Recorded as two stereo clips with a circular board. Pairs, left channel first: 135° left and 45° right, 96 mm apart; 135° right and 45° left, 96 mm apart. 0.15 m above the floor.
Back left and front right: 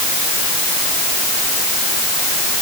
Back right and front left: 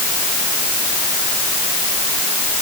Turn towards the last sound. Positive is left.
No sound to turn to.